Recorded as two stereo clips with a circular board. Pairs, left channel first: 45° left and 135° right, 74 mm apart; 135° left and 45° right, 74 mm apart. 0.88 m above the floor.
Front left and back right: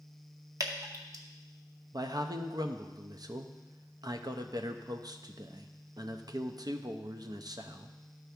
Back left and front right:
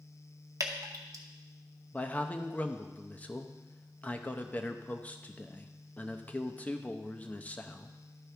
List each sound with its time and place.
0.6 s dripping: 90° right, 0.8 m
1.9 s a man speaking: 155° right, 0.6 m